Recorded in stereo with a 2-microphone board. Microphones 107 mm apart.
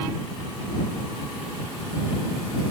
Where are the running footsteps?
I don't hear running footsteps.